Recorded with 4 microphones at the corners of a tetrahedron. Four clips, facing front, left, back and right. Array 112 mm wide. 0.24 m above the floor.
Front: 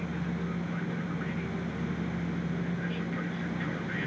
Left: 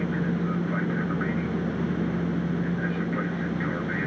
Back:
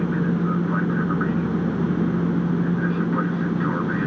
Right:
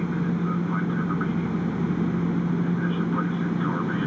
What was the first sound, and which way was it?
An aircraft, 175° right.